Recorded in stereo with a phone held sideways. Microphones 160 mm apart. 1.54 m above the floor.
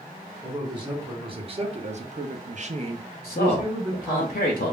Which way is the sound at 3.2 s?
75° left (ahead or behind).